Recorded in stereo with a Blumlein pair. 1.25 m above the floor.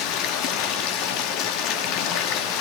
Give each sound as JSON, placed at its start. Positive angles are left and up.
{"t": 0.0, "sound": "running water", "azimuth_deg": 40, "distance_m": 2.0}